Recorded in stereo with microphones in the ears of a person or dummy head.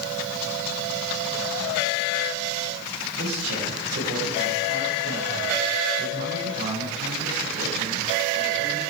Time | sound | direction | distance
3.2 | a man speaking | 75° right (ahead or behind) | 8.5 m